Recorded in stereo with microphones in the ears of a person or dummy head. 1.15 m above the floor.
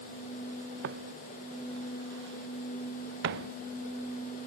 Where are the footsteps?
60° right (ahead or behind); by 3.5 s 65° right (ahead or behind).